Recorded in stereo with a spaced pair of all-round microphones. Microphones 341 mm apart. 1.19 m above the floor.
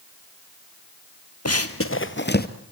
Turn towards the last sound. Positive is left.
turn(degrees=25)  # may be behind; listen again after turning